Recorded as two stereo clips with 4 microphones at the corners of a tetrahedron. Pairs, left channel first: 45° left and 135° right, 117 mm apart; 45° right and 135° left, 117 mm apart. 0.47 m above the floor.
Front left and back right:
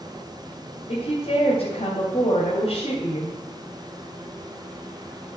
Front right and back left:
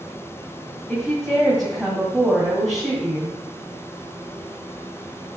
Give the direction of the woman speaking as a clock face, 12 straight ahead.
11 o'clock.